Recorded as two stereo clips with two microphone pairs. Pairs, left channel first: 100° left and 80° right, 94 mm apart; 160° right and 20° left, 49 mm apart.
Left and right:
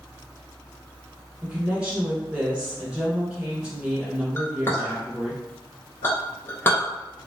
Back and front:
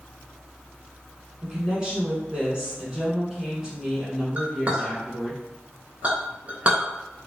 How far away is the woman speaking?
About 1.3 m.